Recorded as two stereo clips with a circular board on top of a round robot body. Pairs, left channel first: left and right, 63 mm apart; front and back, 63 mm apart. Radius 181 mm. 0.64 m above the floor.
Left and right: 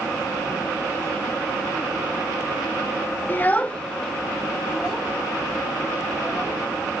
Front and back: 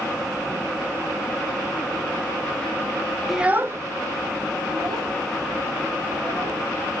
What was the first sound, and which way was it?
A child speaking, 95° left.